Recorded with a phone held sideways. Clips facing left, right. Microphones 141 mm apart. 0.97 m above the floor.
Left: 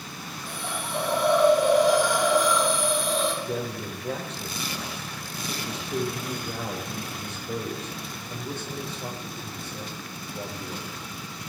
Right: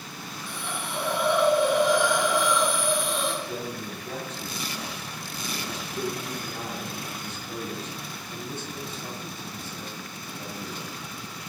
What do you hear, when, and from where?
0.5 s a hiss: 40° left (ahead or behind), 5.5 m
3.4 s a man speaking: 75° left (ahead or behind), 4 m